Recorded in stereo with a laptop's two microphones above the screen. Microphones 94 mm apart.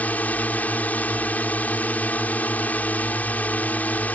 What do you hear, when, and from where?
0.0 s a drone: 15° left (ahead or behind)